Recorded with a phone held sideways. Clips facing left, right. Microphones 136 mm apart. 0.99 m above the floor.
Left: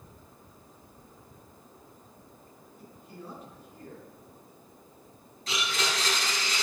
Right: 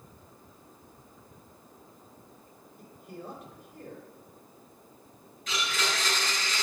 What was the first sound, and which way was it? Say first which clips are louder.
A man speaking: right 3 dB; 80° right.